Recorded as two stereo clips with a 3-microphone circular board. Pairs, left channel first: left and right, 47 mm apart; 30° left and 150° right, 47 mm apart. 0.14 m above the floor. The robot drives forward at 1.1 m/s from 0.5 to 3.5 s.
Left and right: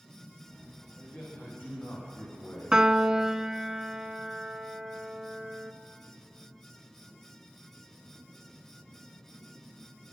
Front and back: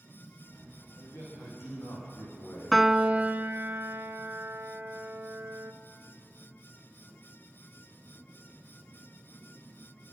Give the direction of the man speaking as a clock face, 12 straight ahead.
11 o'clock.